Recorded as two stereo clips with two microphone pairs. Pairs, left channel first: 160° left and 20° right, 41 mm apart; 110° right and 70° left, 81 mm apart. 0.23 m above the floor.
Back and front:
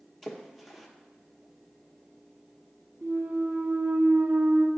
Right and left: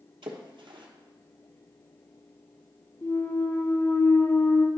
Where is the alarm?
I don't hear an alarm.